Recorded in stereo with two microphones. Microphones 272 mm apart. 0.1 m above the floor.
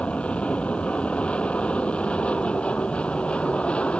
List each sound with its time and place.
0.0 s an aircraft: 5° left (ahead or behind)